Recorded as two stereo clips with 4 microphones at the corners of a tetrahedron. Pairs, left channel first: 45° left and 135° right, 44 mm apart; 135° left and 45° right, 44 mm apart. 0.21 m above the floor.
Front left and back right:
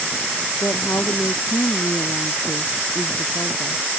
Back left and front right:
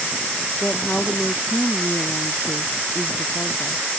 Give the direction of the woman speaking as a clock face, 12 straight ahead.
10 o'clock.